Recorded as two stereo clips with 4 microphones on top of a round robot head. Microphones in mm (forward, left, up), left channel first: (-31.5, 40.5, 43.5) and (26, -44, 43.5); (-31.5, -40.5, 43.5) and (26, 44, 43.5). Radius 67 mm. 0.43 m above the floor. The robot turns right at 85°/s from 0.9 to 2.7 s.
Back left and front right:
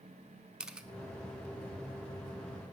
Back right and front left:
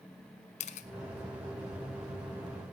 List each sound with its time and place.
0.6 s a camera shutter: 135° right, 0.7 m